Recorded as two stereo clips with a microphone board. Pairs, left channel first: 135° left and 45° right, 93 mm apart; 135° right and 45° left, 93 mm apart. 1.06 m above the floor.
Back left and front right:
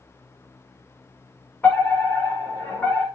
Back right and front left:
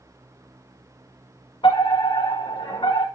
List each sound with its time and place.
1.6 s a fire alarm: 155° right, 5.5 m